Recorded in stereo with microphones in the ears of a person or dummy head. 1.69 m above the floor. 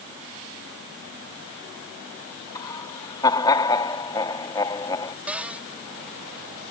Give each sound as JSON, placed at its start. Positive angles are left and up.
{"t": 2.5, "sound": "laughter", "side_deg": 25}
{"t": 5.3, "sound": "a cupboard door", "side_deg": -5}